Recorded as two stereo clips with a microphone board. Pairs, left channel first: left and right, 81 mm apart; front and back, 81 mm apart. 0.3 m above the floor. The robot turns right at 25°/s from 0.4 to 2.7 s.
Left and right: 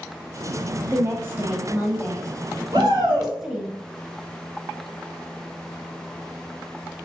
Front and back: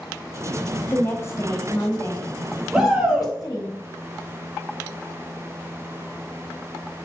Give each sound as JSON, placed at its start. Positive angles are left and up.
{"t": 0.9, "sound": "a woman speaking", "azimuth_deg": -50, "distance_m": 1.7}
{"t": 2.7, "sound": "a shout", "azimuth_deg": -105, "distance_m": 2.5}